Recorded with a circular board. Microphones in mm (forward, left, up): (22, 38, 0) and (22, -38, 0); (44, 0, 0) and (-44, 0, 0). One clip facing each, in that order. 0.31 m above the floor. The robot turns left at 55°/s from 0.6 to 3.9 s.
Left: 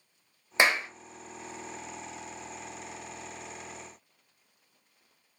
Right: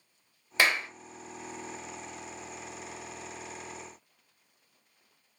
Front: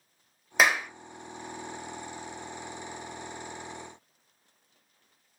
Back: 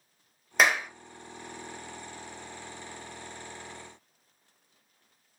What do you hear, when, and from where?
0.6 s a clap: 85° left, 0.6 m; by 0.9 s 70° left, 0.6 m